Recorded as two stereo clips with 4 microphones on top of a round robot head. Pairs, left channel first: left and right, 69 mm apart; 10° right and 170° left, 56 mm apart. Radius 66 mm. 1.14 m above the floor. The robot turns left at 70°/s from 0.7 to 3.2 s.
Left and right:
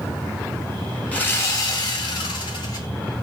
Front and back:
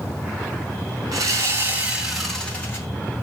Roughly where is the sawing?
Behind.